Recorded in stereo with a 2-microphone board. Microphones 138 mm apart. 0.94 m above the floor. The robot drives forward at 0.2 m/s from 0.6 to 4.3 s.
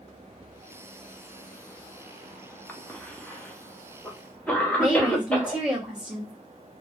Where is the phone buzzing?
No phone buzzing in this recording.